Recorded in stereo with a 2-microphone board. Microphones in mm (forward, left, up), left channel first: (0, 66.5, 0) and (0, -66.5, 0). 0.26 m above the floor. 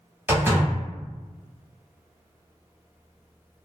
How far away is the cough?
No cough in this recording.